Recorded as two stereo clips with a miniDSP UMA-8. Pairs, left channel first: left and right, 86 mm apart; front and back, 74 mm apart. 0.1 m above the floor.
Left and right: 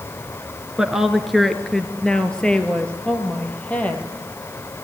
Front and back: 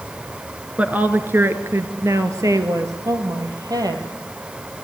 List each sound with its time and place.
0.8 s a woman speaking: 160° right, 1.5 m; by 4.0 s 160° left, 3 m